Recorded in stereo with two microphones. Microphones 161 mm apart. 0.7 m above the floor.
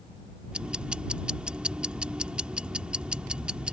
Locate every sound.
0.5 s ticking: 5° right (ahead or behind)